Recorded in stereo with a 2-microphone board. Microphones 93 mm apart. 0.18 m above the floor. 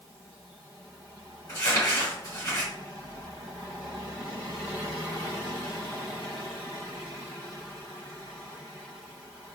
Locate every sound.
1.5 s crumpling: 40° left (ahead or behind), 2.0 m